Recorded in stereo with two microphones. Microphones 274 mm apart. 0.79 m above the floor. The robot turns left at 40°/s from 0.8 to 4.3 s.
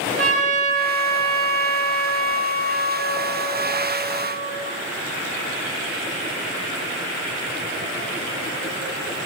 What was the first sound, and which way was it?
A trumpet, 175° left.